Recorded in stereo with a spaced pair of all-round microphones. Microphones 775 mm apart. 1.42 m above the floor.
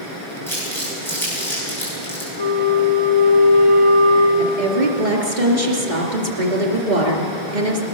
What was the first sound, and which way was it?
Crumpling, 5° left (ahead or behind).